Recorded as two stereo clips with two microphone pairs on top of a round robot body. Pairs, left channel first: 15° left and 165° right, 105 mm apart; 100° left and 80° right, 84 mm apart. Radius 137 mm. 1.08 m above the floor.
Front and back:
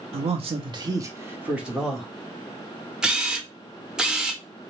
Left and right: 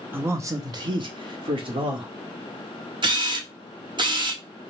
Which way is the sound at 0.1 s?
150° right.